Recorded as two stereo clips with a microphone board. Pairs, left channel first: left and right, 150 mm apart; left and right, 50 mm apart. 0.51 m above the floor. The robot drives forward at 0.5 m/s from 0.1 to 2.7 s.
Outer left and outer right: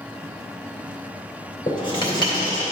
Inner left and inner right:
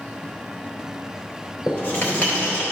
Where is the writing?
35° left (ahead or behind), 2.5 m; by 2.6 s 30° left (ahead or behind), 3 m.